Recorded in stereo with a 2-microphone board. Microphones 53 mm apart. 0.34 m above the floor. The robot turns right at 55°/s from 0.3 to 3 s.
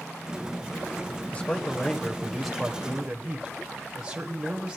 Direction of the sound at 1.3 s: 125° left.